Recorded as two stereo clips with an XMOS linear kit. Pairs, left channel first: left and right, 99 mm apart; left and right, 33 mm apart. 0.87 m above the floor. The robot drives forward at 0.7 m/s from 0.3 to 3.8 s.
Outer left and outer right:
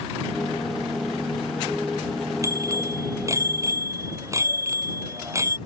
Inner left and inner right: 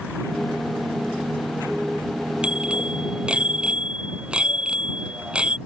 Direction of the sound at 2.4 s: 30° right (ahead or behind).